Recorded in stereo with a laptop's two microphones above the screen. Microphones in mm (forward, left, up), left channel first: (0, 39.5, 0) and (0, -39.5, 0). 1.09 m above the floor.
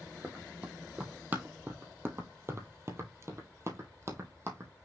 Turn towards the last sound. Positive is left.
turn(degrees=-35)  # may be behind; listen again after turning